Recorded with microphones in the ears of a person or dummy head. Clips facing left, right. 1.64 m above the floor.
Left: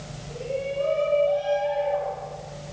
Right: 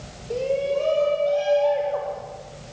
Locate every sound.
0.3 s a shout: 80° right, 7 m; by 2.2 s 70° right (ahead or behind), 7 m